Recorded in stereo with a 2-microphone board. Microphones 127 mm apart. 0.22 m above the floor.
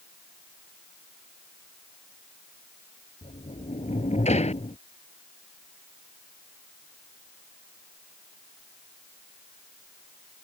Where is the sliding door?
65° left (ahead or behind).